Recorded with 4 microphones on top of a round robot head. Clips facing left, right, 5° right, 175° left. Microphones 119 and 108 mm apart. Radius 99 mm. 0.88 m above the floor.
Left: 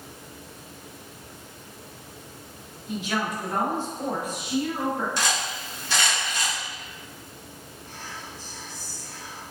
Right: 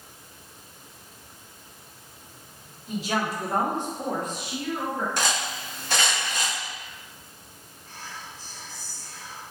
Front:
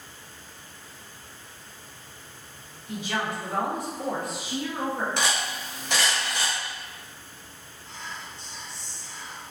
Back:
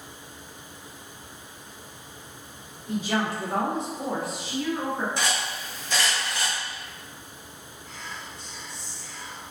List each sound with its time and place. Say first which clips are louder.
2.9 s a woman speaking: right 1 dB, back 3 dB; 135° right, 1.3 m; by 5.1 s 50° left, 1.0 m
5.2 s cutlery clinking: even, front 1 dB; 40° right, 0.6 m
7.8 s whispering: even, front 1 dB; 65° left, 1.1 m